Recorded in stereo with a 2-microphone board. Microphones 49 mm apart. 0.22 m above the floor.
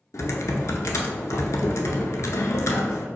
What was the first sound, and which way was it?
Typing on a keyboard, 85° left.